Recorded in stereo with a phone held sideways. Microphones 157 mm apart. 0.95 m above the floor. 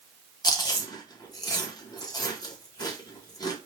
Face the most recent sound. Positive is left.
turn(degrees=25)  # may be behind; listen again after turning